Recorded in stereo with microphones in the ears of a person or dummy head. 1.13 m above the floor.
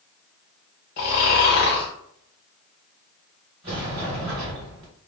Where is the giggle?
I don't hear a giggle.